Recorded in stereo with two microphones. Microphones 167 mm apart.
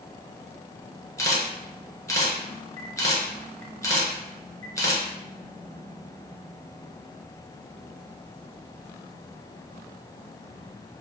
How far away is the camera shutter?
About 0.9 m.